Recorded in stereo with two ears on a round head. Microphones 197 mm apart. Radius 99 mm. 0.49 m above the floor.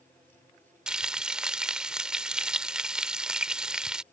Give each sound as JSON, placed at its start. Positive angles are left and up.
{"t": 0.9, "sound": "frying", "side_deg": -5}